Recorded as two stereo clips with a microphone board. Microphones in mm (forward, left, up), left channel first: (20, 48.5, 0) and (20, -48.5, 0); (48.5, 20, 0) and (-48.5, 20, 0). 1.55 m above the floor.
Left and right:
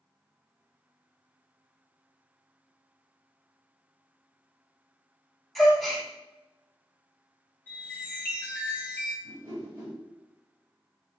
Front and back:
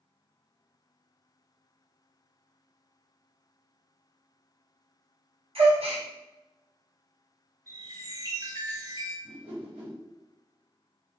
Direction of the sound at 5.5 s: Straight behind.